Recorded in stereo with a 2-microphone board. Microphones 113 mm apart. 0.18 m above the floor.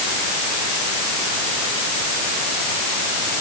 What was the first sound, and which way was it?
Only background noise.